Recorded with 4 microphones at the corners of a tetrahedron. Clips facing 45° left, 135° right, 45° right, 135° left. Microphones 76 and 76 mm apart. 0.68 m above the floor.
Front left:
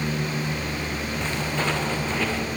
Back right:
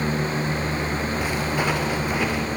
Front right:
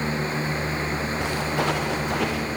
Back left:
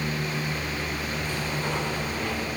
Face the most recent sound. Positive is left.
turn(degrees=-60)